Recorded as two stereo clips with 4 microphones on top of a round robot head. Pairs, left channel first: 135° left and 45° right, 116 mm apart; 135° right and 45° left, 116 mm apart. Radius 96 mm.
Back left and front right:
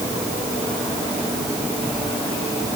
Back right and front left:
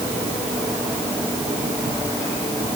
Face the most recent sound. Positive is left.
No sound to turn to.